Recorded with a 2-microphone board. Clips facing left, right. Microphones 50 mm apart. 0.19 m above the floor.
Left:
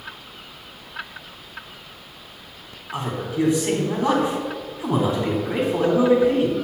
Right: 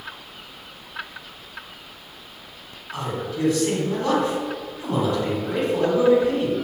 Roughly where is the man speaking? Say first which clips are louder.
Left 2 dB; left.